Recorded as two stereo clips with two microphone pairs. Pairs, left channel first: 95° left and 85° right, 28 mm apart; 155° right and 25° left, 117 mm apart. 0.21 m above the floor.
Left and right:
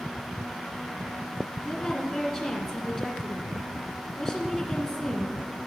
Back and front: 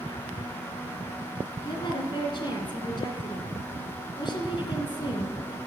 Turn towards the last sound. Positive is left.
turn(degrees=165)